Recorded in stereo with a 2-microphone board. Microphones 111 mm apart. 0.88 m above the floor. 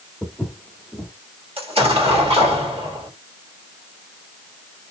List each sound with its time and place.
0.2 s footsteps: centre (ahead or behind), 1.1 m
1.6 s an explosion: 65° right (ahead or behind), 1.7 m